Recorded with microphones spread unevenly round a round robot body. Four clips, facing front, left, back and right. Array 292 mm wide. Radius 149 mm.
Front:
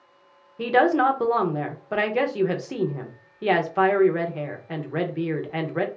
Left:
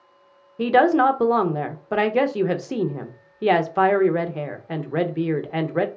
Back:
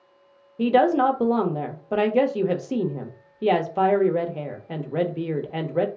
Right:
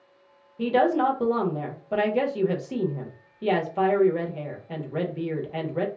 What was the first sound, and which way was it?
A woman speaking, 100° left.